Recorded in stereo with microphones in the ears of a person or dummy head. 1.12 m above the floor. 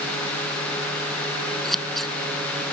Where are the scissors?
5° left (ahead or behind).